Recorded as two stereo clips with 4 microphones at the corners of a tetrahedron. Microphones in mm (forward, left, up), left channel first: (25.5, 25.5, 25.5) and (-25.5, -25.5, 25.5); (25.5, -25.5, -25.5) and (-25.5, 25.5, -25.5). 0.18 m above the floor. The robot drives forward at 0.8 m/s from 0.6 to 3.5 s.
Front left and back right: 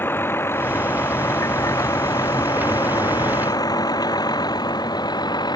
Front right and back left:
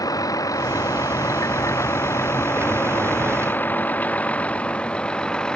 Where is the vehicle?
15° right; by 5.6 s 35° left.